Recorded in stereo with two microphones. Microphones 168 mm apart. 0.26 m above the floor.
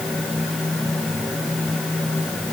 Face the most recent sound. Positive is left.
No sound to turn to.